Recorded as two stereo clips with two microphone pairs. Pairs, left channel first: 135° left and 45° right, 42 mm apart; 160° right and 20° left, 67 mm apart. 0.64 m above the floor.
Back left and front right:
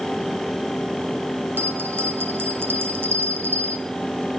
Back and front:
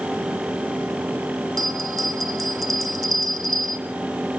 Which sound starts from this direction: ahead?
A bell, at 1.6 s.